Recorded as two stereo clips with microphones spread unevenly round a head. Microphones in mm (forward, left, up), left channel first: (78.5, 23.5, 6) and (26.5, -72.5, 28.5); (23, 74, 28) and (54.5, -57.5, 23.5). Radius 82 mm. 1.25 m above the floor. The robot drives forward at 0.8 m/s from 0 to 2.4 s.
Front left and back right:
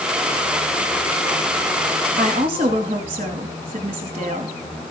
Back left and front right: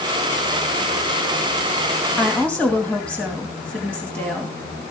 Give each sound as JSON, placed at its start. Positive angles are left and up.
{"t": 2.2, "sound": "a woman speaking", "azimuth_deg": -175, "distance_m": 2.0}